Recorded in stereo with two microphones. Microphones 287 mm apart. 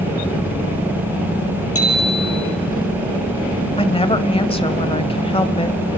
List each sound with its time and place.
1.8 s a bicycle bell: 60° left (ahead or behind), 5 m
3.8 s a woman speaking: 20° left (ahead or behind), 1.0 m